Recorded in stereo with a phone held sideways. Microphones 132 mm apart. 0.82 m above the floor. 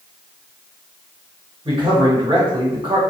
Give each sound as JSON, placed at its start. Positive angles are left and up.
{"t": 1.6, "sound": "a man speaking", "side_deg": -40, "distance_m": 1.8}